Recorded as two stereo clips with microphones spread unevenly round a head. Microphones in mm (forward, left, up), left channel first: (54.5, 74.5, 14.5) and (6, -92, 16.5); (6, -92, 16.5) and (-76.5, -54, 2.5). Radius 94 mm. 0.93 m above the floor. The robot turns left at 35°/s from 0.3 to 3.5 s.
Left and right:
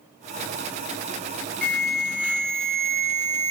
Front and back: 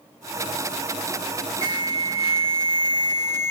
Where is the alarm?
5° right, 1.9 m; by 3.5 s 70° right, 1.9 m.